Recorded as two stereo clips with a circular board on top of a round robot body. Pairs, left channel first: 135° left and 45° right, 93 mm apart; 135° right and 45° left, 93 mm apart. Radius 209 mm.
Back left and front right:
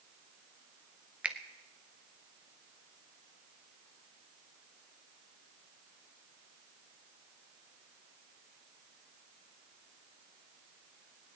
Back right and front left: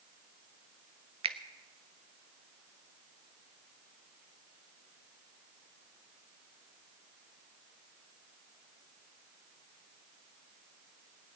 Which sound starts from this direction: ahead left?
A finger snap, at 1.2 s.